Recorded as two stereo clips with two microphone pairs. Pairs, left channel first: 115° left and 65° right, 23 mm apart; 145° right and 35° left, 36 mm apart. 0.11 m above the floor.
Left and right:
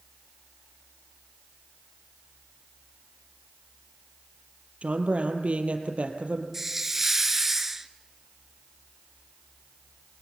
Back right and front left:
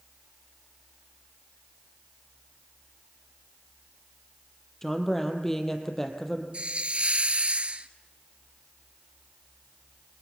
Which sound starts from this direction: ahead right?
A woman speaking, at 4.8 s.